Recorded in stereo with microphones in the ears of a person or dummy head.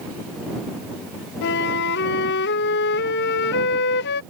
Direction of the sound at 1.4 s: 55° left (ahead or behind).